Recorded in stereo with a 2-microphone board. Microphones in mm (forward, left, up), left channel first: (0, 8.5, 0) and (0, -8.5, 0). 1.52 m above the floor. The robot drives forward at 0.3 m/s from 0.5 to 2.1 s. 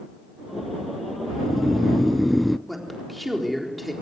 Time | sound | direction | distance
1.3 | snoring | 5° left (ahead or behind) | 0.7 m
2.7 | a man speaking | centre (ahead or behind) | 4 m